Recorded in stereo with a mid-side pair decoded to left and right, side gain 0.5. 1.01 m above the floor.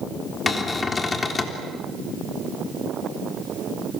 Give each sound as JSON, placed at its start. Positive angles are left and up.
{"t": 0.5, "sound": "a cupboard door", "azimuth_deg": 30, "distance_m": 3.5}